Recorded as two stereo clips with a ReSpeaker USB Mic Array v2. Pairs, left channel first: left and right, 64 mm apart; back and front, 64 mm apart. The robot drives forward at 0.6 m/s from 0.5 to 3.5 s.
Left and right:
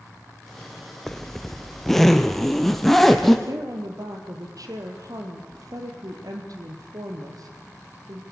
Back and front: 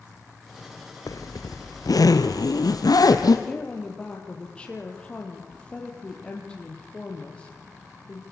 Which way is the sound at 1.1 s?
175° left.